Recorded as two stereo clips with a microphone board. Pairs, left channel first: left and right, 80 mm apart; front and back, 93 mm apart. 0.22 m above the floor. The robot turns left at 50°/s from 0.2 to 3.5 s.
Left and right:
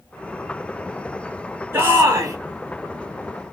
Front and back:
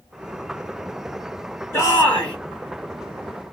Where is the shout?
45° right, 1.8 m; by 2.4 s 75° right, 1.8 m.